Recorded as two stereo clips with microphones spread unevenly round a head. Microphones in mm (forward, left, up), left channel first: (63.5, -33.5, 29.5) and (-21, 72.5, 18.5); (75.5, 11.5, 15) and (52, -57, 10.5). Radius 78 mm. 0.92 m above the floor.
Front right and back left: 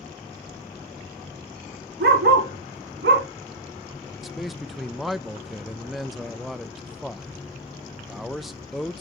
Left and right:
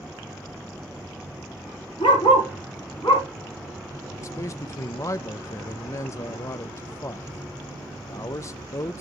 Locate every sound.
2.0 s a dog barking: 125° left, 2.5 m; by 3.3 s 140° left, 2 m
4.2 s a man speaking: 45° left, 0.6 m